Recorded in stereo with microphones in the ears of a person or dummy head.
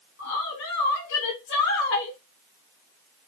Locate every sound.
0.2 s a woman speaking: 65° left (ahead or behind), 1.0 m